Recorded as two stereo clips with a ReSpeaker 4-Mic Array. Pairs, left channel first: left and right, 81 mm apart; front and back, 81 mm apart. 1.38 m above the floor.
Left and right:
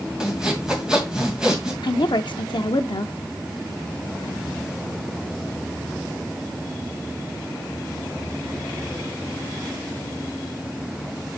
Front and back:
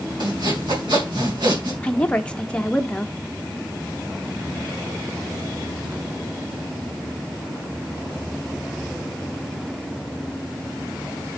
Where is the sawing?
170° right, 2.5 m.